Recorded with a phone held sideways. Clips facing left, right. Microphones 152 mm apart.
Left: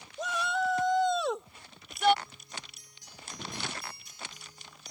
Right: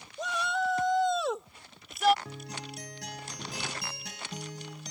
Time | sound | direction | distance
0.2 | a shout | centre (ahead or behind) | ?
2.2 | a guitar | 80° right | ?